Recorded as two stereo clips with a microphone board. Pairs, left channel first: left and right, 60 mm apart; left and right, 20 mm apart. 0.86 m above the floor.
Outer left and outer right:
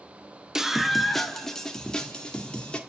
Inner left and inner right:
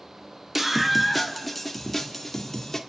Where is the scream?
10° right (ahead or behind), 0.9 m; by 2.8 s 20° left (ahead or behind), 1.9 m.